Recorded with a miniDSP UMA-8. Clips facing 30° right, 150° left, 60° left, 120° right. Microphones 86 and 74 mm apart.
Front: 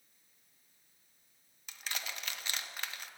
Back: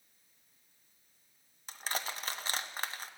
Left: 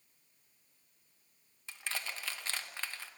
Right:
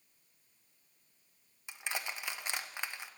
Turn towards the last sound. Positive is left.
turn(degrees=175)